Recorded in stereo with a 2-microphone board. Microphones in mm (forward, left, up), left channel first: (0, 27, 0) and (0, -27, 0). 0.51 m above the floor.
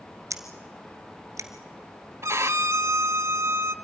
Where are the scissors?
75° right (ahead or behind), 1.4 m.